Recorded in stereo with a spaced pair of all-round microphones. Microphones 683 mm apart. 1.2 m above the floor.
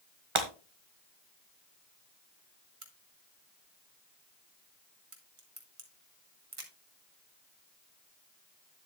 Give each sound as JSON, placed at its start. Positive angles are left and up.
{"t": 0.3, "sound": "breaking glass", "side_deg": -45, "distance_m": 1.4}
{"t": 2.8, "sound": "a crack", "side_deg": -50, "distance_m": 1.6}